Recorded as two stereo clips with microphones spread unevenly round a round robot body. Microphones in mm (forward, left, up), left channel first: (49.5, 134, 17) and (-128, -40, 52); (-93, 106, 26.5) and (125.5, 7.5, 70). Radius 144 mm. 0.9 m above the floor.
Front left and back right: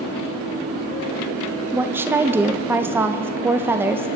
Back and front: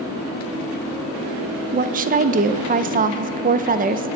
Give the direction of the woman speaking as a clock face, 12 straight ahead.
2 o'clock.